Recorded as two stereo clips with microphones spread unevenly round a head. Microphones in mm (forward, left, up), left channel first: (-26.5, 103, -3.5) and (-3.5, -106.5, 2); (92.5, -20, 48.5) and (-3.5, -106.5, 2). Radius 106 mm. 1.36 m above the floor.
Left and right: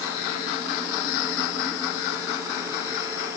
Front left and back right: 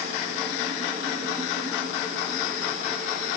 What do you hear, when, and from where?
Only background noise.